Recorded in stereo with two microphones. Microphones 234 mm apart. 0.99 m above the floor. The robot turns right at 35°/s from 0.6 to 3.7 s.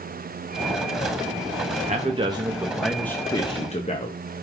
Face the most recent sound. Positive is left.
turn(degrees=30)